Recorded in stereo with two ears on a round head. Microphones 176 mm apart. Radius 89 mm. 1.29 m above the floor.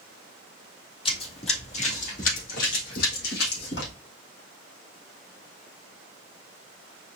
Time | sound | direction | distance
1.1 | running footsteps | 30° left (ahead or behind) | 1.8 m